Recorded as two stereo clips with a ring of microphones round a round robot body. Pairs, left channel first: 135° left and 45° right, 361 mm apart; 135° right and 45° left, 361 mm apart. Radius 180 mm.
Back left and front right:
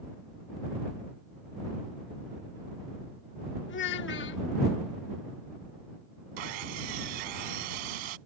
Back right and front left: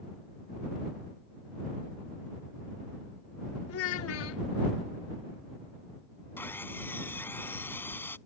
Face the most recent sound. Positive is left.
turn(degrees=-50)